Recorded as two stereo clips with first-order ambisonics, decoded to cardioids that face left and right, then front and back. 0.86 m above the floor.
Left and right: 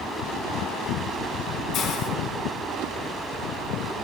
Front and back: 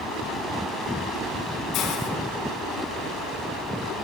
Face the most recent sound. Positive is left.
turn(degrees=40)